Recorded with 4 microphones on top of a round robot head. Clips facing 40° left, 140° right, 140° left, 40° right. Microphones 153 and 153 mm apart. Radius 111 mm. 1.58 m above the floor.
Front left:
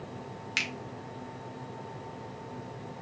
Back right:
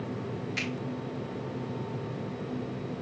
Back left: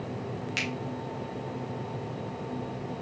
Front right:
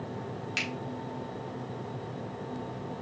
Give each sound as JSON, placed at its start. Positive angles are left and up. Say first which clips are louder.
{"t": 0.6, "sound": "a finger snap", "louder": "back right 6 dB, back left 3 dB", "azimuth_deg": 50, "distance_m": 1.0}